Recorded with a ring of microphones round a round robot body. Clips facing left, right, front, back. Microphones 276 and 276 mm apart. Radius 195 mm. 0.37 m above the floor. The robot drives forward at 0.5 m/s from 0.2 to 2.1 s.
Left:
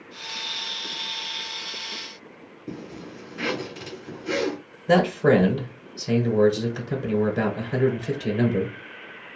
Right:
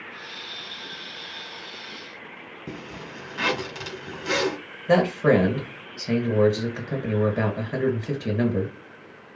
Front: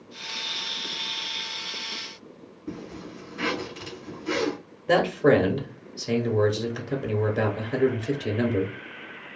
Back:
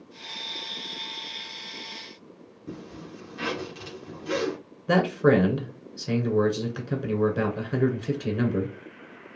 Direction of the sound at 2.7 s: 115° right.